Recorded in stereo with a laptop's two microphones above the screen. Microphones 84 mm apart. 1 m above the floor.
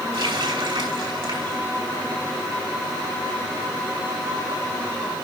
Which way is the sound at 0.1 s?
85° right.